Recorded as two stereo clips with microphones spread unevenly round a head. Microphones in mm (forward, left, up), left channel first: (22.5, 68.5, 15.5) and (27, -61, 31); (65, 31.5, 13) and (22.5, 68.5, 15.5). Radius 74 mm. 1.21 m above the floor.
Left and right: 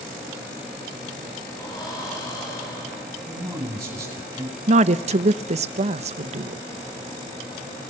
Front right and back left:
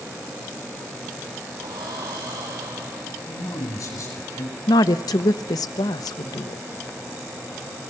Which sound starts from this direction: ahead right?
A woman speaking, at 4.7 s.